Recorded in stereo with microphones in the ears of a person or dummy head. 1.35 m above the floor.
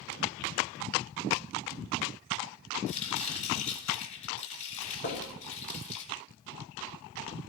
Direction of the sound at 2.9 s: 35° left (ahead or behind).